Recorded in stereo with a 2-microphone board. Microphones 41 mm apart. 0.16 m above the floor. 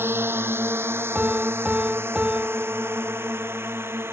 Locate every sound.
0.0 s a drone: 80° right; by 4.1 s 85° right
1.1 s a piano: 30° right (ahead or behind)